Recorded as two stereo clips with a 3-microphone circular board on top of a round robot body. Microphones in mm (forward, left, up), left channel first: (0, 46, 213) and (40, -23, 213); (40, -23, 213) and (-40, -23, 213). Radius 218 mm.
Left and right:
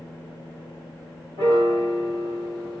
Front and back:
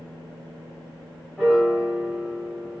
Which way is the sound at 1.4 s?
90° right.